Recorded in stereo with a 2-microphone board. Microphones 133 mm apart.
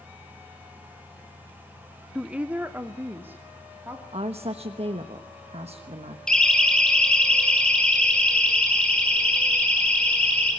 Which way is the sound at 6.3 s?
5° left (ahead or behind).